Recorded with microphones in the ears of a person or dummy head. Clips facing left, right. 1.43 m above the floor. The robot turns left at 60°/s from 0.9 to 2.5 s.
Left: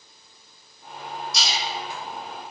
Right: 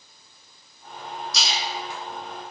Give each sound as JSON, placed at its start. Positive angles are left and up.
{"t": 1.3, "sound": "a splash", "side_deg": -60, "distance_m": 1.0}